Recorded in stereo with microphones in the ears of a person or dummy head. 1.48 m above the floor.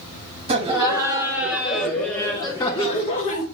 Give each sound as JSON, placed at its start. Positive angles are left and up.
{"t": 0.5, "sound": "laughter", "side_deg": -30, "distance_m": 2.0}